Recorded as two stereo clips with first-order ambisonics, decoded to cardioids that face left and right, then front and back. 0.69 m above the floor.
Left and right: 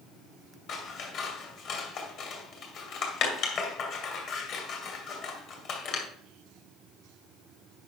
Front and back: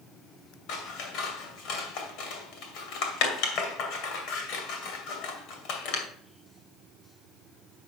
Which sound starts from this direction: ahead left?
Scissors, at 0.7 s.